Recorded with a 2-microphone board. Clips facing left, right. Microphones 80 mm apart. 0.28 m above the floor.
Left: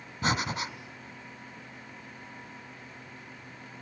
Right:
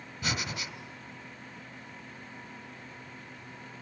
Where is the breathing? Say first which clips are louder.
Left 6 dB; 40° left (ahead or behind), 1.6 m.